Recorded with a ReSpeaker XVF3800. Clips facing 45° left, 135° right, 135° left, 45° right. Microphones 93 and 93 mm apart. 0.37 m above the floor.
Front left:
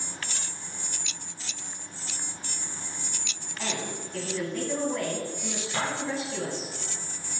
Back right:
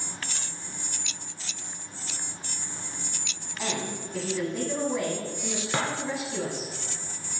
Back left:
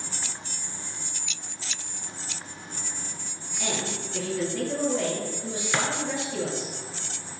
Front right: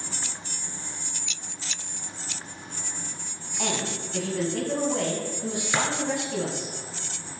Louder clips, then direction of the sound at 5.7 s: Back right 2 dB, front right 1 dB; 130° right.